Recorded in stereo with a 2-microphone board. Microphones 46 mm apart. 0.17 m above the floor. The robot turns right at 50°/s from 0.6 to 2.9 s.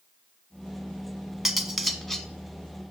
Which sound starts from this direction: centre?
Cutlery clinking, at 1.4 s.